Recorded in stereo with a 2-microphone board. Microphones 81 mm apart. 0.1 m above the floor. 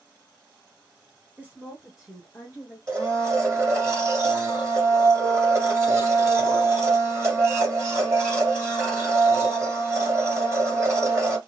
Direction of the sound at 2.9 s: 30° right (ahead or behind).